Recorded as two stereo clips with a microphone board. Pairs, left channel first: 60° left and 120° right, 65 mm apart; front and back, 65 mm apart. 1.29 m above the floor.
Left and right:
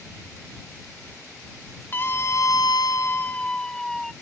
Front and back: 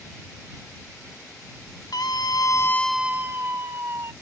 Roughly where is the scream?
Ahead.